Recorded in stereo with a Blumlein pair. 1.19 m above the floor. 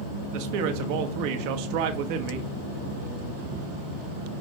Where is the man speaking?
45° right, 1.3 m.